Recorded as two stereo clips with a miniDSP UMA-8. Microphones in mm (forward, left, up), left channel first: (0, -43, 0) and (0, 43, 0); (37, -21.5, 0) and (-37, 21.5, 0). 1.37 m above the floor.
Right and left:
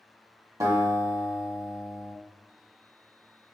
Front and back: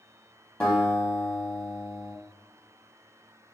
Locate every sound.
0.6 s a guitar: 40° left, 1.5 m